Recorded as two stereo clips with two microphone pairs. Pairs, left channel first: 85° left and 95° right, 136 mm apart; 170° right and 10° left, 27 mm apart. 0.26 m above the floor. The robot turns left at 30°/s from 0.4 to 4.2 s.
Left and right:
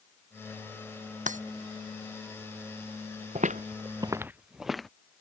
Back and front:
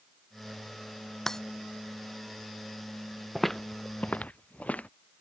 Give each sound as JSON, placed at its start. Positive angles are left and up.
{"t": 1.3, "sound": "breaking glass", "azimuth_deg": -100}
{"t": 3.4, "sound": "footsteps", "azimuth_deg": -75}